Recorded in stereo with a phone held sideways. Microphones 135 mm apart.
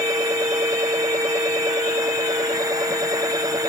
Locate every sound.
0.0 s a machine running: 25° right (ahead or behind)